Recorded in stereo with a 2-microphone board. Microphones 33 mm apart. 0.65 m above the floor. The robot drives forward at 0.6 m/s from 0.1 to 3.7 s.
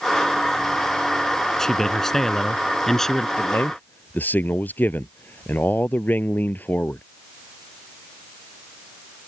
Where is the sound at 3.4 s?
60° left (ahead or behind).